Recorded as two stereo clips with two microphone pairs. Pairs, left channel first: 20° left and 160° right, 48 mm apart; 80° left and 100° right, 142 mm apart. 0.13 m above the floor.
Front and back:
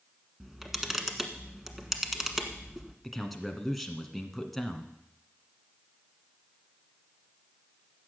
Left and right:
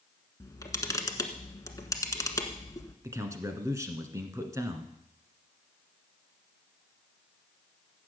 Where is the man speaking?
60° right, 1.6 m.